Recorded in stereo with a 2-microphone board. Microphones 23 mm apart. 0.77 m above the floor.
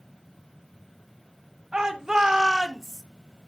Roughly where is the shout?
Right.